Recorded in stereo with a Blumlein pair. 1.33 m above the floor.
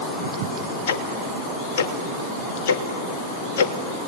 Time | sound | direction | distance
0.9 | ticking | 55° left | 1.4 m